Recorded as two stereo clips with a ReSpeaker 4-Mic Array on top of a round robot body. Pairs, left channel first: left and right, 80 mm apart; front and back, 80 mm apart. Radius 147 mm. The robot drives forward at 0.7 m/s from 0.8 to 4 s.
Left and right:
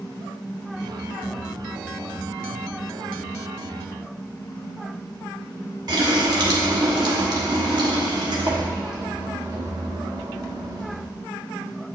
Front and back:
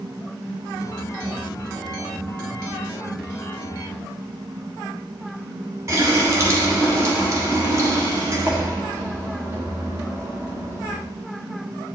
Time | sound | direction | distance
5.9 | a running tap | 125° right | 1.4 m